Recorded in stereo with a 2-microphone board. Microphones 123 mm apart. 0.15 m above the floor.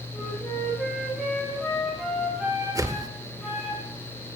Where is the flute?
5° left (ahead or behind), 5.5 m.